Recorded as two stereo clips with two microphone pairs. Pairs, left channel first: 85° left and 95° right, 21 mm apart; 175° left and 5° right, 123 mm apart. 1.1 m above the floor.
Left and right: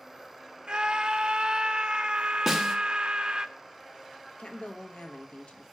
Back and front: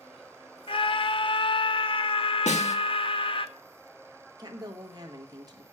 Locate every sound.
0.7 s a scream: 140° right, 0.8 m
2.5 s a snare drum: 165° right, 1.2 m
4.4 s a woman speaking: 50° left, 1.4 m